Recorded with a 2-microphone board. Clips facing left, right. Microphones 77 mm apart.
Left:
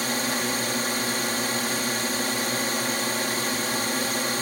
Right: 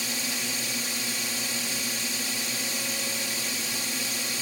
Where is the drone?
55° left (ahead or behind).